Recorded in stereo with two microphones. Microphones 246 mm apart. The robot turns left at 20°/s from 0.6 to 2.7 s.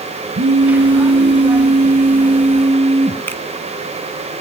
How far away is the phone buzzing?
About 2.5 m.